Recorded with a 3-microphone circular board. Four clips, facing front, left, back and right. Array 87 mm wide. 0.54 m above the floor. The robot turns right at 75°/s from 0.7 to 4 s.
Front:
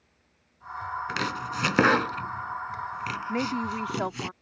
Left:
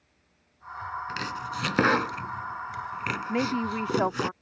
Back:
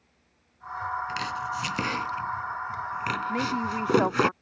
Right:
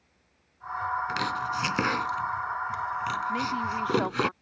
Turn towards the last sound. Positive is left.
turn(degrees=125)